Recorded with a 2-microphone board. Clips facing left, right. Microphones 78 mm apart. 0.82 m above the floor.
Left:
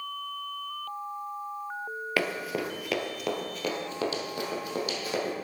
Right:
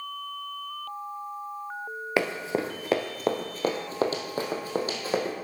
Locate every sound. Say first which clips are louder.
2.2 s running footsteps: right 4 dB; 25° right (ahead or behind), 0.9 m; by 5.3 s 30° right (ahead or behind), 2 m